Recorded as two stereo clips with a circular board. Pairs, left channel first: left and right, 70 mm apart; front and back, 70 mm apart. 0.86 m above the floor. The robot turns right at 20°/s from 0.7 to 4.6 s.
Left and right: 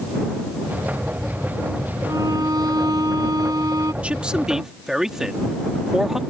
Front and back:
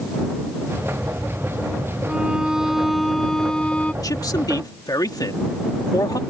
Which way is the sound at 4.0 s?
20° right.